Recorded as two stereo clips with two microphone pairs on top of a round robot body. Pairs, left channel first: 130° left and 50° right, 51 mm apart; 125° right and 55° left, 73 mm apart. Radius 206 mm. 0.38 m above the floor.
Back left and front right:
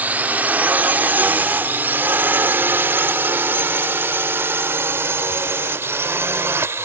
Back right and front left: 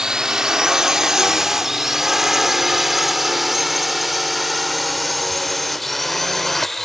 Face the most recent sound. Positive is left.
turn(degrees=-40)